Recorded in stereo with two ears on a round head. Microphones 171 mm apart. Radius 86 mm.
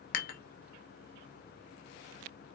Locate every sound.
0.1 s dishes clattering: 50° left (ahead or behind), 0.7 m